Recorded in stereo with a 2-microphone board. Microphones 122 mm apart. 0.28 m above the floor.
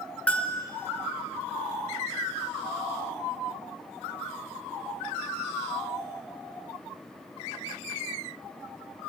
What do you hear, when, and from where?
0.3 s a bell: 10° left (ahead or behind), 1.1 m